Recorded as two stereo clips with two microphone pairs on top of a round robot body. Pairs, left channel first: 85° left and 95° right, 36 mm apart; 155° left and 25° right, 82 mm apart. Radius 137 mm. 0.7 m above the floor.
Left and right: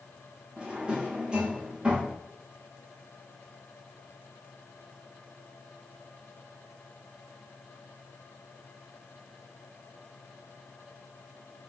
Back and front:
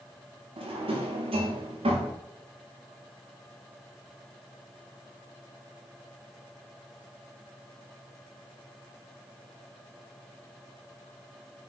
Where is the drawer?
25° right, 0.7 m.